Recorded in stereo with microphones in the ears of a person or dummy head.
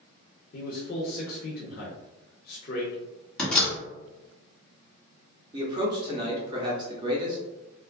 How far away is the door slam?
About 1.8 m.